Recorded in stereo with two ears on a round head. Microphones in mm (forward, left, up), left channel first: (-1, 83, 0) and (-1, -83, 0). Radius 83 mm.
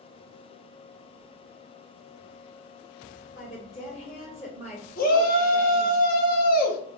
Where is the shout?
50° left (ahead or behind), 0.7 m.